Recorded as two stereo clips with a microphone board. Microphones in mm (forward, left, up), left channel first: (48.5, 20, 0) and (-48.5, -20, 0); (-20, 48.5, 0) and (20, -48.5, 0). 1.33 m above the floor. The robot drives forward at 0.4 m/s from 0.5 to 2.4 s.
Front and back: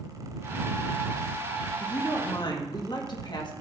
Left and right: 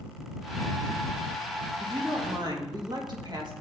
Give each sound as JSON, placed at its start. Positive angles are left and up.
{"t": 1.8, "sound": "a woman speaking", "azimuth_deg": -20, "distance_m": 3.0}